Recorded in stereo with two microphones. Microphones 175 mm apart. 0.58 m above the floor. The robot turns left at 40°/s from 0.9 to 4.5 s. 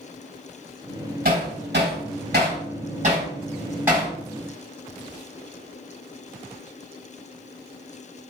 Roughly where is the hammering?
Right.